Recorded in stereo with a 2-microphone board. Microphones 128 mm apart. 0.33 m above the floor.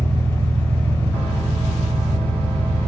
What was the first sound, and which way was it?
An engine running, 45° right (ahead or behind).